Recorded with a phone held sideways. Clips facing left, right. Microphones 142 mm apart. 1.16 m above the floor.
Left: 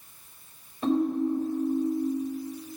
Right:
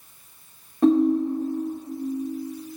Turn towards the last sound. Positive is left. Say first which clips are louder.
# right 7 dB
turn(degrees=-75)  # may be behind; listen again after turning